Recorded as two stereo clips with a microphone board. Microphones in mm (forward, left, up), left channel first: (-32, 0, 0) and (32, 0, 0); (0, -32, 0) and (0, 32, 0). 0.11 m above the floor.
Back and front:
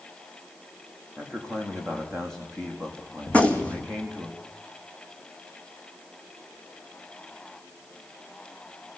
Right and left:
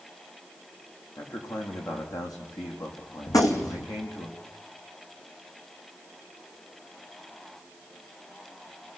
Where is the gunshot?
110° right, 2 m.